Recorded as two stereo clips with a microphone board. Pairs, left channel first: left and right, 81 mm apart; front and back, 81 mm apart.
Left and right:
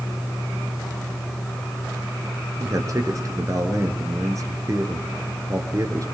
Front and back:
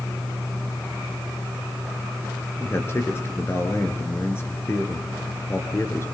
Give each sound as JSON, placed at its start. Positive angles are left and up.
{"t": 2.6, "sound": "a man speaking", "azimuth_deg": -50, "distance_m": 2.5}